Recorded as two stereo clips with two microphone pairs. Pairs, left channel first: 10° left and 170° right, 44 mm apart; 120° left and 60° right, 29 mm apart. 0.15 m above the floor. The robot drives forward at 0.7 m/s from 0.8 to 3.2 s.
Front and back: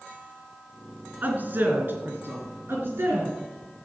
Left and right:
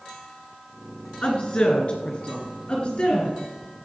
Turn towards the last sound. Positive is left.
turn(degrees=170)